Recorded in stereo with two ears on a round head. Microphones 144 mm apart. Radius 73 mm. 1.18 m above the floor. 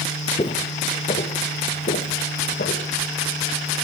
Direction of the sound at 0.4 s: 35° left (ahead or behind).